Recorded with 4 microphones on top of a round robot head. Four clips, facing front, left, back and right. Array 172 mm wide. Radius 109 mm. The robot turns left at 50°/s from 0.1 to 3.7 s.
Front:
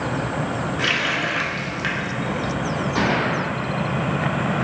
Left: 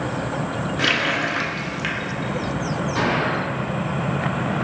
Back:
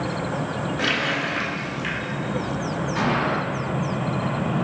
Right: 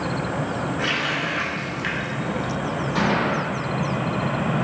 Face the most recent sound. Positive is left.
turn(degrees=-75)